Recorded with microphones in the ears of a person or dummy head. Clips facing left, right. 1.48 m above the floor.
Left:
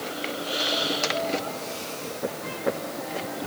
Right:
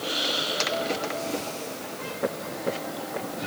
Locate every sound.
Only background noise.